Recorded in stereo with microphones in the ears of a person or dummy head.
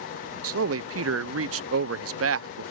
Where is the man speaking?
70° right (ahead or behind).